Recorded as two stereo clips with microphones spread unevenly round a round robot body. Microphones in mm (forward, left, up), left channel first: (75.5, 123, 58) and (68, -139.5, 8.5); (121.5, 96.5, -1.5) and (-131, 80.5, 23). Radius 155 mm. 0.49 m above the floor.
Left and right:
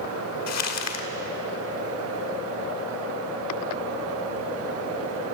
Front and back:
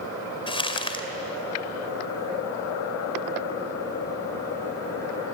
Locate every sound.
0.5 s crumpling: 70° left, 2.5 m